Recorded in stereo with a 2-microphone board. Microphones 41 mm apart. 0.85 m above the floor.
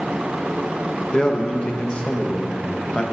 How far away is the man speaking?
About 0.5 m.